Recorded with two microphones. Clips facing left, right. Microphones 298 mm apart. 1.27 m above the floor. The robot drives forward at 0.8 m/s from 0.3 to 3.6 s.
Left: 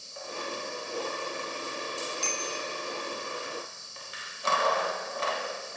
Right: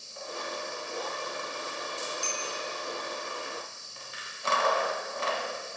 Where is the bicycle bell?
85° left, 5 m.